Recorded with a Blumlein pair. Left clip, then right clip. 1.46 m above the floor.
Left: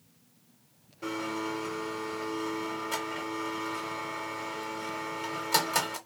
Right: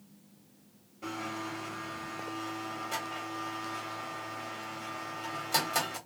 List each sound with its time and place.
1.0 s a blender: 10° left, 1.1 m